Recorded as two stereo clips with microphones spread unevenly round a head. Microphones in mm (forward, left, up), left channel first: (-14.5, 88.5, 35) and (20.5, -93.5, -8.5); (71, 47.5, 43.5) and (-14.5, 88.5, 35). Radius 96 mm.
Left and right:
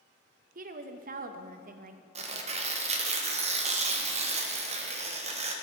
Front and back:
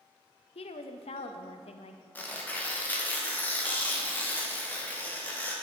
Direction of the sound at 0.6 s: 45° right.